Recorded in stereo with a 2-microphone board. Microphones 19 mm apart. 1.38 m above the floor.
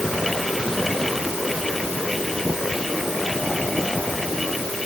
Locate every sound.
Only background noise.